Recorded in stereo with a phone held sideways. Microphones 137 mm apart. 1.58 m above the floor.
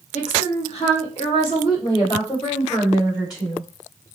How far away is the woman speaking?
About 1.4 m.